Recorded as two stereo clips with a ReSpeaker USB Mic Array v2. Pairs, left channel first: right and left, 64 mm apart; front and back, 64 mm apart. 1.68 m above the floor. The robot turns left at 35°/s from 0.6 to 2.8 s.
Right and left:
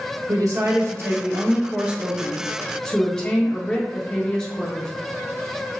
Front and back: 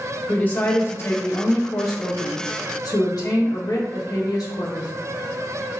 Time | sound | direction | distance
0.3 | a woman speaking | 65° left | 1.2 m